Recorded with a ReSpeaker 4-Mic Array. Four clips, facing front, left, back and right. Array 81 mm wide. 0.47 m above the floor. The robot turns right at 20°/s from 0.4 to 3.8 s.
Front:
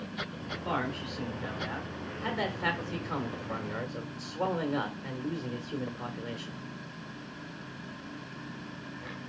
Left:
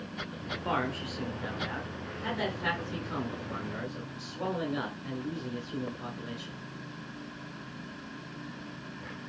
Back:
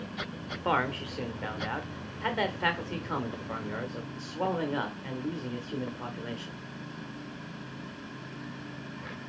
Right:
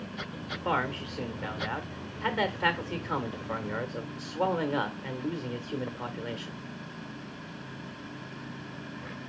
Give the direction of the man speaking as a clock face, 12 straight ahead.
6 o'clock.